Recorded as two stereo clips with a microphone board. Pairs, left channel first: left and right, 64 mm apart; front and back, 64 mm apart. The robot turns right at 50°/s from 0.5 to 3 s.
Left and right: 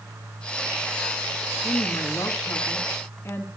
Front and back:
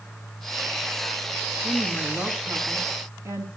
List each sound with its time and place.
1.6 s a woman speaking: 70° left, 3 m; by 3.5 s 140° left, 3 m